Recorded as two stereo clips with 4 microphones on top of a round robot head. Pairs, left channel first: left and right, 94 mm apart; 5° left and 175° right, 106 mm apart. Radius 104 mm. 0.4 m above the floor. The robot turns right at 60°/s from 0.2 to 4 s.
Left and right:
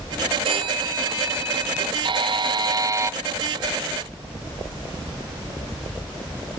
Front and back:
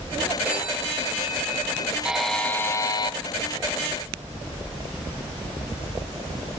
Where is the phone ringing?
100° right, 6.5 m; by 1.9 s 10° right, 6.5 m.